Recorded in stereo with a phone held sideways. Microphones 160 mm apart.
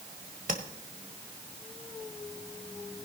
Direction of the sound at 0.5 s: 55° right (ahead or behind).